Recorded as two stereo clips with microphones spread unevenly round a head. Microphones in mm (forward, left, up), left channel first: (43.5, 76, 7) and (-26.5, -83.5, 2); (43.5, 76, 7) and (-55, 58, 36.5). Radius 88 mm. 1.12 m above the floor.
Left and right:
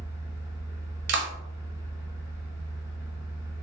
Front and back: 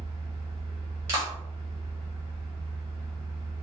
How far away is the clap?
About 0.6 m.